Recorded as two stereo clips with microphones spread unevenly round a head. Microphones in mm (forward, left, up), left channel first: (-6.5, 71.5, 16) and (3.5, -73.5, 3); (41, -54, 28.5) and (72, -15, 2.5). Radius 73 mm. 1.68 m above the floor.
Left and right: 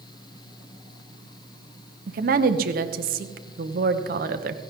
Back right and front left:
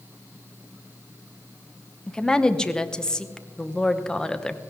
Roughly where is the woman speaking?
Ahead right.